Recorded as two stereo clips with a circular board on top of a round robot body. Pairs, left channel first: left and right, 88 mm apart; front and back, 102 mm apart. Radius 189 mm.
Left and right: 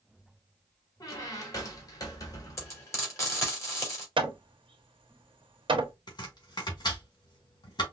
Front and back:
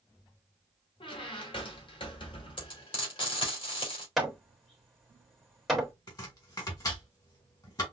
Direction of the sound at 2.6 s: 35° left.